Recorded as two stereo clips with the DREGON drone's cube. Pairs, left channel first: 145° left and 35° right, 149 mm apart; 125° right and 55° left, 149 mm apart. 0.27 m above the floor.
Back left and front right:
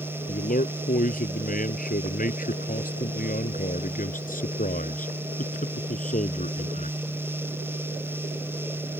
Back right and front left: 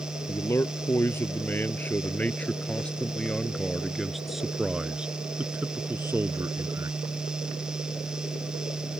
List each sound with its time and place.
0.3 s a man speaking: 165° left; by 7.0 s 120° left